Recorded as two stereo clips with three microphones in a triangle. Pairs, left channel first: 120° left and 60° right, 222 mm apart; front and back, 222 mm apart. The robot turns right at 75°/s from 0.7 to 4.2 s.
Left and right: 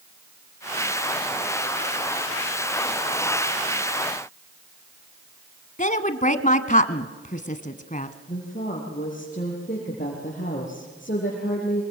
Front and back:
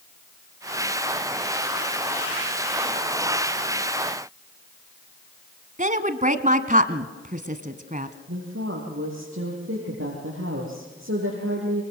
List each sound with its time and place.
5.8 s a woman speaking: 150° left, 1.5 m
8.3 s a woman speaking: 170° left, 5 m